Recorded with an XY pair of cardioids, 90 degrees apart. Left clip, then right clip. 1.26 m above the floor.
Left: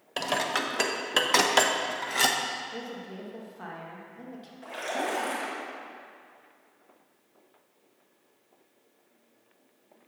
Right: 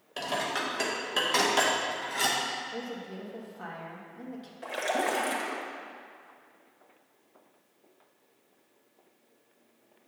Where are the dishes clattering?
55° left, 0.7 m.